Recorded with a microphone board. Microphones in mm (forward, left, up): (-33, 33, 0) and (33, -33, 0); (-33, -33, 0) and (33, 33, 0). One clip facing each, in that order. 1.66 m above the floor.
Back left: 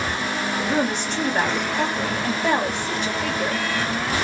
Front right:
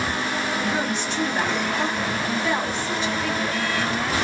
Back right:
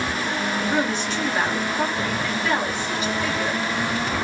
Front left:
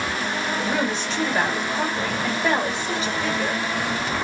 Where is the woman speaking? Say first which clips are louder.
Back left 2 dB, back right 2 dB; 100° left, 1.8 m.